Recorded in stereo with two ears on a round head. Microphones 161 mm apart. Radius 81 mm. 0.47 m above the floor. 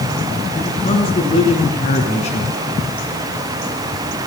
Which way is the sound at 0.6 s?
35° left (ahead or behind).